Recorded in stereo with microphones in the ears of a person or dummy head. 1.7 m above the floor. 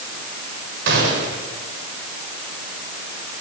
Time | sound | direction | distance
0.9 | a gunshot | 70° right (ahead or behind) | 5.5 m